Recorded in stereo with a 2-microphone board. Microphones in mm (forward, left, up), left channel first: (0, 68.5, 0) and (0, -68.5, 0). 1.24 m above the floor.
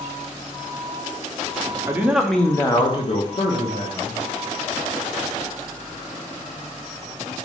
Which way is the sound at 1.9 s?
15° right (ahead or behind).